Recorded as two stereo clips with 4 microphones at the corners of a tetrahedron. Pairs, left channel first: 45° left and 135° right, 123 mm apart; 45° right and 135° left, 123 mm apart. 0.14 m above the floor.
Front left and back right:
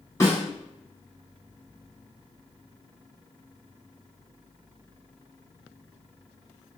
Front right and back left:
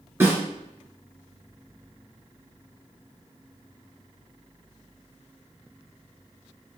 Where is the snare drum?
85° left, 1.7 m.